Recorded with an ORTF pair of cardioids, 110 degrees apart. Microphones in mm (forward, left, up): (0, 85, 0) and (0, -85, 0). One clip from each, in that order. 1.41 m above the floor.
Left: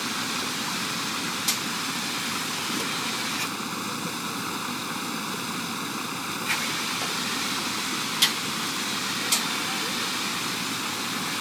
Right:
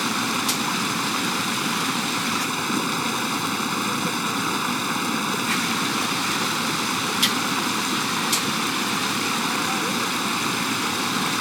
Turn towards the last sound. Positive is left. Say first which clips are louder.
# right 5 dB
turn(degrees=-40)